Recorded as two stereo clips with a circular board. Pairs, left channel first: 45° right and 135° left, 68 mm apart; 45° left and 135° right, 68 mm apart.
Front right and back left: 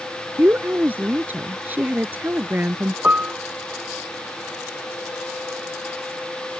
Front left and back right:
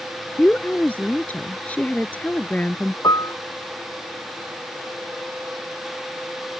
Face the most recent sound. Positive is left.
turn(degrees=70)